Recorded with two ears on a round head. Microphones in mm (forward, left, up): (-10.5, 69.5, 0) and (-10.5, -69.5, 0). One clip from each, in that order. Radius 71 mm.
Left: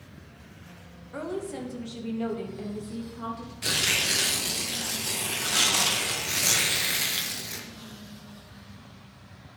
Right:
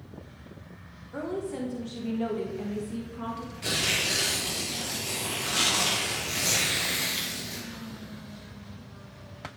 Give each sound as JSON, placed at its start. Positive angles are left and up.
{"t": 1.1, "sound": "a woman speaking", "side_deg": 35, "distance_m": 1.1}
{"t": 3.6, "sound": "tearing paper", "side_deg": 25, "distance_m": 1.2}